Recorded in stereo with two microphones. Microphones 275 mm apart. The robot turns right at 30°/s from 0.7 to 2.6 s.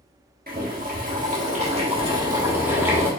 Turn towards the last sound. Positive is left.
turn(degrees=-15)